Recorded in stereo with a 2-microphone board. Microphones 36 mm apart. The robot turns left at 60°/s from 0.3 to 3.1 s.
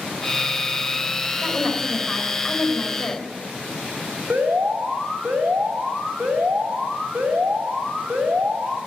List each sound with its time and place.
1.4 s a woman speaking: 125° right, 3.5 m; by 3.2 s 135° left, 3.5 m
4.3 s an alarm: 55° right (ahead or behind), 4 m